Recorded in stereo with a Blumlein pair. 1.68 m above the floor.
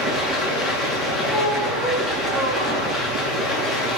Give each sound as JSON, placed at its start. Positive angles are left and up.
{"t": 0.0, "sound": "running water", "azimuth_deg": 15, "distance_m": 9.5}
{"t": 1.3, "sound": "a squeak", "azimuth_deg": 10, "distance_m": 7.5}